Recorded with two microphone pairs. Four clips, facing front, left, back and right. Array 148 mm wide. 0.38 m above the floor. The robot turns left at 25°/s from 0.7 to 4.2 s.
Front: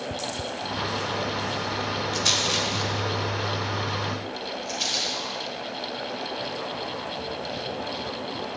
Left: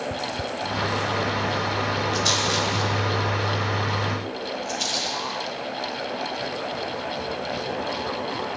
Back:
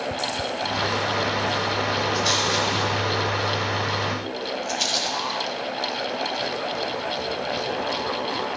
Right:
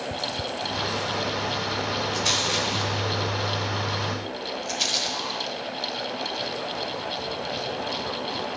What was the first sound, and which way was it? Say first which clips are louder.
A rattle: left 3 dB, back 4 dB; 30° right.